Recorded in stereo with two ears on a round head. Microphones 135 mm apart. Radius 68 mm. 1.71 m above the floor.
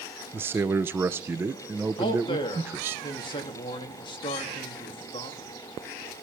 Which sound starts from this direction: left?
A man speaking, at 2.0 s.